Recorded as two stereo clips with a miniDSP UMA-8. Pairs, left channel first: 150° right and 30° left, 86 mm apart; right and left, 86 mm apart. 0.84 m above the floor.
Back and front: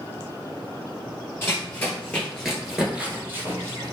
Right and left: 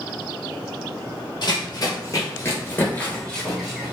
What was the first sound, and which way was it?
Running footsteps, 95° right.